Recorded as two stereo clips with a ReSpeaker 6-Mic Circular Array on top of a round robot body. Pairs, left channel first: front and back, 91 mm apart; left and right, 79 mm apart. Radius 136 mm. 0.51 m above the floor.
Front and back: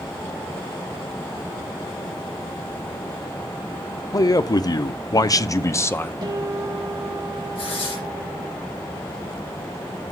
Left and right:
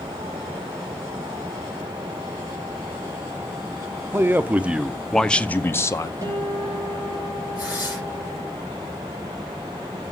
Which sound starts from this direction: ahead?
Tearing paper, at 7.5 s.